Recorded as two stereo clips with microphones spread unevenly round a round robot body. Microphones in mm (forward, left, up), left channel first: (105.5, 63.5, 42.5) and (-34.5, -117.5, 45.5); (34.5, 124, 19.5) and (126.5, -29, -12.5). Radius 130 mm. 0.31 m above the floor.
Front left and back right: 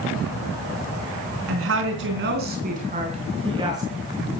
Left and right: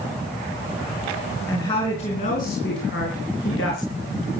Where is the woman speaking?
160° right, 3.5 m; by 3.9 s 155° left, 4.5 m.